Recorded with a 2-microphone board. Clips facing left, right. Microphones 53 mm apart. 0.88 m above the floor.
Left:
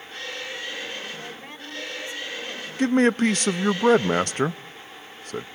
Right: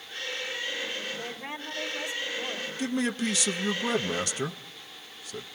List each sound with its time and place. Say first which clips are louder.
1.1 s a woman speaking: right 1 dB; 15° right (ahead or behind), 4 m
2.8 s a man speaking: left 10 dB; 50° left (ahead or behind), 0.6 m